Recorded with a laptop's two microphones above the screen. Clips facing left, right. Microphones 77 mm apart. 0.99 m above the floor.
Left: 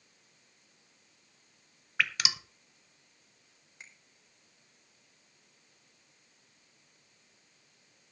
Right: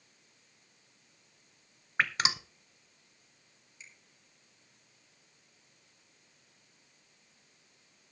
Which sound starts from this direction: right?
Dripping, at 2.0 s.